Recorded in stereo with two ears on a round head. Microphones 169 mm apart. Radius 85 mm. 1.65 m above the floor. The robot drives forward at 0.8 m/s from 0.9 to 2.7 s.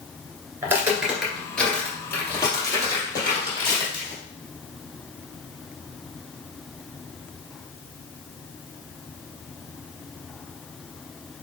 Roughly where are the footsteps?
Centre.